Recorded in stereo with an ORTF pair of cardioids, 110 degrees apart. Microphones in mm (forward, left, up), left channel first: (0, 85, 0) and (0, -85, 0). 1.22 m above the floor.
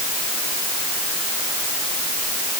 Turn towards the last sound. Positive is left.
No sound to turn to.